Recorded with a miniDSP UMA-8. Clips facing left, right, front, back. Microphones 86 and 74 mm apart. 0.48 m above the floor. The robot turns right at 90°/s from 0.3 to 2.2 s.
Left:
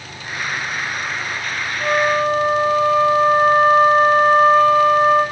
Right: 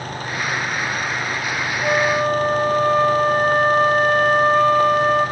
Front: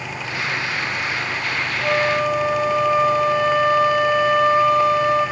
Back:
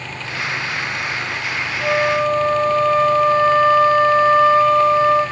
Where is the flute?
145° left, 1.5 m; by 5.2 s 175° right, 1.5 m.